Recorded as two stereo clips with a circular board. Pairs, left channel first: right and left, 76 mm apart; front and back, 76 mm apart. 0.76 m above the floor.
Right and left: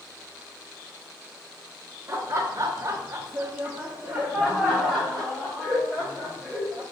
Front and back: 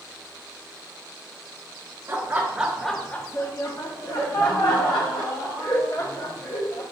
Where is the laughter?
130° left, 0.7 m; by 6.8 s 5° right, 2 m.